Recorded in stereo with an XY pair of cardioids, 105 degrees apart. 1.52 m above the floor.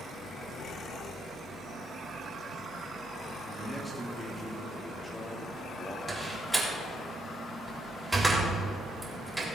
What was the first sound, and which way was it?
A man speaking, 15° left.